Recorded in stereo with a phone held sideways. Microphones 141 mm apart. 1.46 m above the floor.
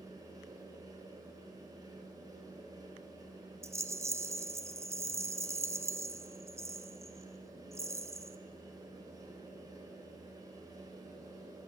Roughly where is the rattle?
Centre.